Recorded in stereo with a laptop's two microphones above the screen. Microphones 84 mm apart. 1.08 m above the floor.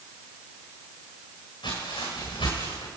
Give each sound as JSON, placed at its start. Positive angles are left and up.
{"t": 1.6, "sound": "footsteps", "side_deg": 75, "distance_m": 10.0}